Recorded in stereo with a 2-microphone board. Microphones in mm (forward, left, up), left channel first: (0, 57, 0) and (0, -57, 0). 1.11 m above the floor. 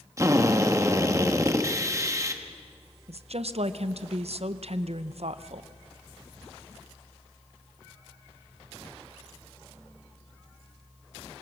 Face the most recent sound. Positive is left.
turn(degrees=-65)  # may be behind; listen again after turning